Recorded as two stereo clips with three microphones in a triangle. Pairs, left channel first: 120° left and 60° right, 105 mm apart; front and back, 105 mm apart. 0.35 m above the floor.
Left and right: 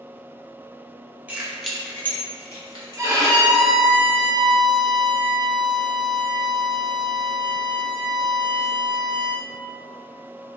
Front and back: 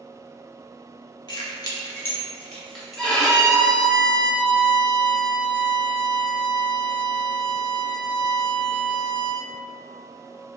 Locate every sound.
1.3 s keys jangling: 5° left, 0.7 m; by 3.5 s 95° left, 1.2 m
3.0 s a violin: 75° right, 0.6 m